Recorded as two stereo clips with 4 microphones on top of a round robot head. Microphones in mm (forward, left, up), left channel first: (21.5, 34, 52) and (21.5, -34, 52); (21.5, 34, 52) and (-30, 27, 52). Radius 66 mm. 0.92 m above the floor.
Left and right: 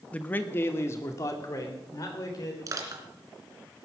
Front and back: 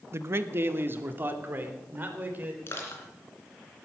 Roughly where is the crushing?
Ahead right.